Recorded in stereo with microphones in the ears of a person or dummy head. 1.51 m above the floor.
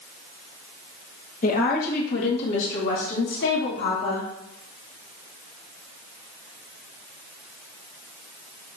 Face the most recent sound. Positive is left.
turn(degrees=80)